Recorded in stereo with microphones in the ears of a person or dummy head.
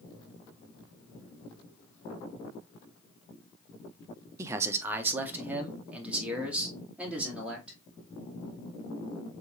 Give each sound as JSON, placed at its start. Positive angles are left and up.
{"t": 4.4, "sound": "a man speaking", "side_deg": -15, "distance_m": 0.5}